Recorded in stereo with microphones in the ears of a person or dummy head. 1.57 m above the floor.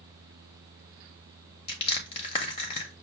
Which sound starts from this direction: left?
Crushing, at 1.7 s.